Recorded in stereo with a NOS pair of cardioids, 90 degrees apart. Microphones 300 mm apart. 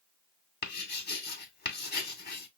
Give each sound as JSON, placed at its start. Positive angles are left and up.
{"t": 0.6, "sound": "writing", "azimuth_deg": 35, "distance_m": 2.0}